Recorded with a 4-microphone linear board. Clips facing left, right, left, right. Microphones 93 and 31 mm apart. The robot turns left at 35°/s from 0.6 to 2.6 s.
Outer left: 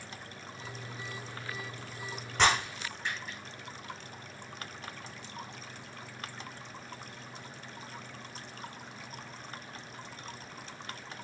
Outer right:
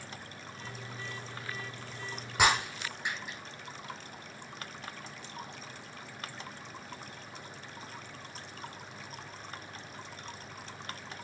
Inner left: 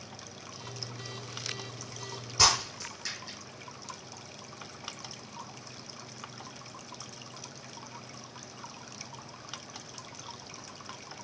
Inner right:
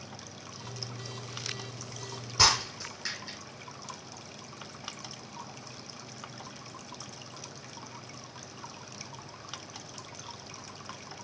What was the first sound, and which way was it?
Breaking glass, 10° right (ahead or behind).